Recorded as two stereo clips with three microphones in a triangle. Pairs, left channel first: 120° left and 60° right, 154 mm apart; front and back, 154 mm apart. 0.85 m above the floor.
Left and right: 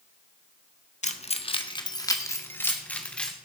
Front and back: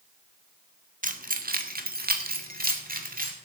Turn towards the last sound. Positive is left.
turn(degrees=-155)